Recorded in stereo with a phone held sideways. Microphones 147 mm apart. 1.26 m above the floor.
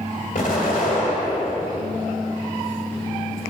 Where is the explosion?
65° left (ahead or behind), 1.8 m.